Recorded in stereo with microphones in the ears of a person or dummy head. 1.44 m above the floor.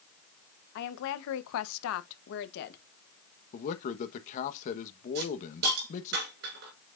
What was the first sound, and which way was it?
A woman speaking, 55° left (ahead or behind).